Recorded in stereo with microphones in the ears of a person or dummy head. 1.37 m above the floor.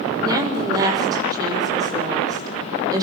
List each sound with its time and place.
0.2 s a woman speaking: 20° right (ahead or behind), 5.5 m